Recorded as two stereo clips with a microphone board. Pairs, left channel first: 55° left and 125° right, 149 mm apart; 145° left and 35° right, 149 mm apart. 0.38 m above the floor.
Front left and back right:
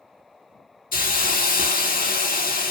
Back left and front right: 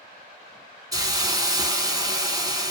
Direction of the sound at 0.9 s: 30° left.